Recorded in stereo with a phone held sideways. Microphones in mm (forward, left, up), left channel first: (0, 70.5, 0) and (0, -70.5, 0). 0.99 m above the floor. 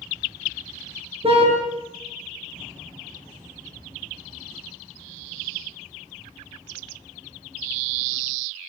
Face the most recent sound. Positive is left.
turn(degrees=-45)  # may be behind; listen again after turning